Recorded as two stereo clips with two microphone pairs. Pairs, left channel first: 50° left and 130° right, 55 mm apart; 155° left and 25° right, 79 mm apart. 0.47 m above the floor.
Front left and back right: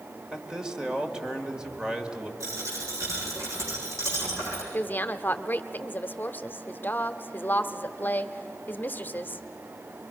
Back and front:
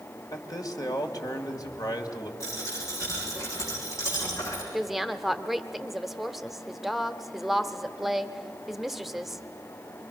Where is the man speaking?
155° left, 2 m.